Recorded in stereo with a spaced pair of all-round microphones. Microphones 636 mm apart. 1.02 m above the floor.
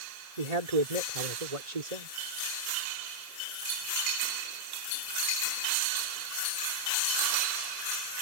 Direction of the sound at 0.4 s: 75° right (ahead or behind).